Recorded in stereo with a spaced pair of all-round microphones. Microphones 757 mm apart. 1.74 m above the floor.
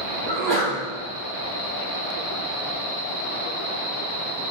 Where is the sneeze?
65° right (ahead or behind), 1.8 m.